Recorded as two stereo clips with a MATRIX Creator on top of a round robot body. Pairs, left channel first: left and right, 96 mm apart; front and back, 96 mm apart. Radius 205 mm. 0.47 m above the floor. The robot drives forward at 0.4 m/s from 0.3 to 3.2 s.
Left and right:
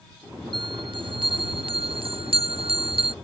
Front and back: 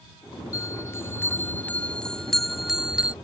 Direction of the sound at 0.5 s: 55° right.